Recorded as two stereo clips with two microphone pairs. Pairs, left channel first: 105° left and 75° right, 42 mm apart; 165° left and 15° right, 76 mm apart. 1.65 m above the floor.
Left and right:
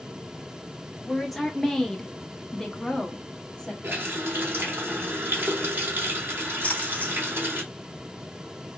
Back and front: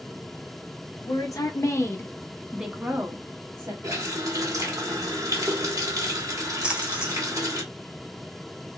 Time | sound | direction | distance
1.0 | a woman speaking | 170° right | 1.0 m
3.8 | a running tap | 50° right | 1.5 m
6.6 | a splash | 60° left | 0.8 m